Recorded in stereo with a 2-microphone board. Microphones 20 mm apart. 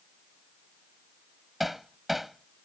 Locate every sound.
1.6 s hammering: 5° right (ahead or behind)